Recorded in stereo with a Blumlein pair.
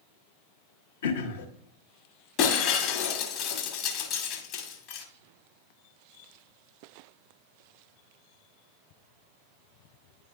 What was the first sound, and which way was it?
Throat clearing, 60° left.